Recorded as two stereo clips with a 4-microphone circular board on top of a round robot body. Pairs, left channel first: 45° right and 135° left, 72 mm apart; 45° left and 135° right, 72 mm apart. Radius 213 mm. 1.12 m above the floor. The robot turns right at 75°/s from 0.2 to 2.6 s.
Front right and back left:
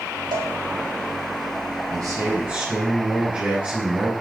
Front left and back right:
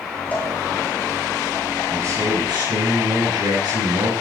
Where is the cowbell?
110° left, 5 m; by 0.5 s 130° left, 5 m.